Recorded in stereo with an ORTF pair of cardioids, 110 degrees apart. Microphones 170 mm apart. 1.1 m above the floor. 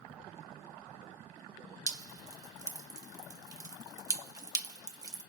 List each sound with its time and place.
1.9 s dripping: 20° right, 0.7 m